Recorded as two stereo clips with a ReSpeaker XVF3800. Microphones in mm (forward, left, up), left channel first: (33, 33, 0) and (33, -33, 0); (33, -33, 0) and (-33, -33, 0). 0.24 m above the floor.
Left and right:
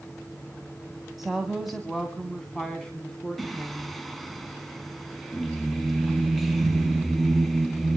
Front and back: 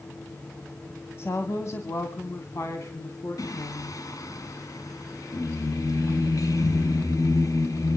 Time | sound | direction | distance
1.2 | a woman speaking | 10° right | 1.9 m
3.4 | singing | straight ahead | 1.3 m